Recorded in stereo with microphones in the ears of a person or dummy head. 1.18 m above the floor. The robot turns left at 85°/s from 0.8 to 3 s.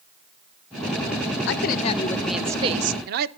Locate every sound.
1.5 s a woman speaking: 70° left, 0.8 m; by 3.3 s 60° right, 0.8 m